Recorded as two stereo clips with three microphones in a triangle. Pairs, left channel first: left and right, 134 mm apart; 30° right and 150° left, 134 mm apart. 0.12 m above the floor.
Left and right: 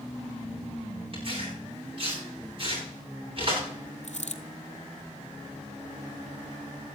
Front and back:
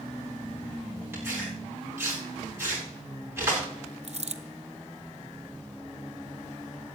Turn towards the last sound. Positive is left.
turn(degrees=120)